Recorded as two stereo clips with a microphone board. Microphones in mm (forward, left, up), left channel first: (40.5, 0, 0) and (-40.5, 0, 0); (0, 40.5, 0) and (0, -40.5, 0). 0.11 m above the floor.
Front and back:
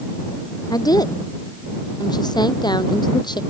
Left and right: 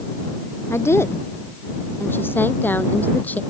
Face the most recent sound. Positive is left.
turn(degrees=20)